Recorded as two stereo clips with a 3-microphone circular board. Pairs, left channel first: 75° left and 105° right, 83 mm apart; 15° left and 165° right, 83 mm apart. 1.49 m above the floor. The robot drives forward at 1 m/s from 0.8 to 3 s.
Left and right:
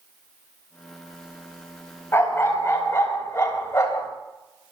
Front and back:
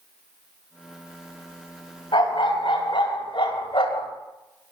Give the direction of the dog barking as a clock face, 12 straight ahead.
11 o'clock.